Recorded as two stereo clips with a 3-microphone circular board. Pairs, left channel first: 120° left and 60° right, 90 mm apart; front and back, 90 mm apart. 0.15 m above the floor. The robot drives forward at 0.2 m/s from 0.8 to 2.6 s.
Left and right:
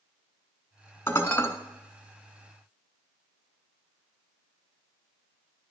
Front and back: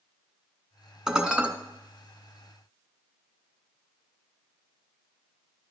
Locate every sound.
1.1 s dishes clattering: 110° left, 0.8 m; by 1.5 s 120° left, 0.8 m